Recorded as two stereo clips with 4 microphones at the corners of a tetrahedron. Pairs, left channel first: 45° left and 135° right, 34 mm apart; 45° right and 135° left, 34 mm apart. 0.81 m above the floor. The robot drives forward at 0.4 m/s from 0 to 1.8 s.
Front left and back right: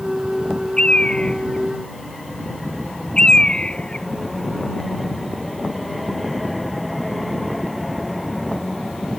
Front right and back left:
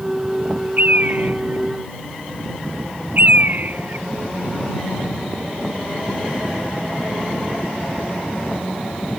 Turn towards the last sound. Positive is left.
turn(degrees=105)